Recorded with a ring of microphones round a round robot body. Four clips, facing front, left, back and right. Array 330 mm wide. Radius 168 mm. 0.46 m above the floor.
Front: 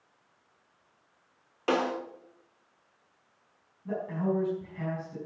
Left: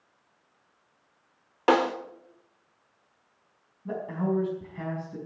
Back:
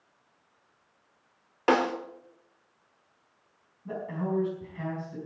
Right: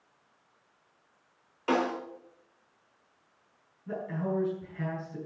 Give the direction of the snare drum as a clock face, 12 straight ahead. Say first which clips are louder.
Left 6 dB, back 4 dB; 8 o'clock.